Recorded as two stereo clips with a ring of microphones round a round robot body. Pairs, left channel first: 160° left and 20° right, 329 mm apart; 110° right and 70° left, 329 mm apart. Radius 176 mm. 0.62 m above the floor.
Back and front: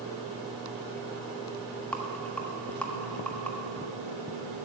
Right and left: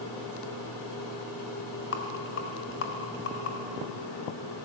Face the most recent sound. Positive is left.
turn(degrees=-120)